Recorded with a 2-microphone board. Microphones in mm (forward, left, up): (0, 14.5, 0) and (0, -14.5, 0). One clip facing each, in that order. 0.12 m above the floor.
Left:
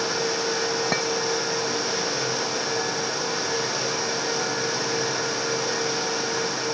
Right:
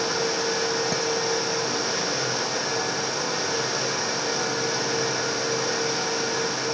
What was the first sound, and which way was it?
A clink, 40° left (ahead or behind).